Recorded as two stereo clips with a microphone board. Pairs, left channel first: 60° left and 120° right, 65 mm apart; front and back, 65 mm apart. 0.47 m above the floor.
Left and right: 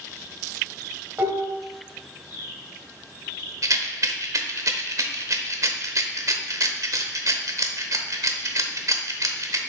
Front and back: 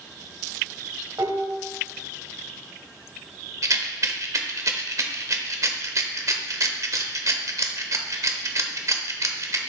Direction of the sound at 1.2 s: 175° right.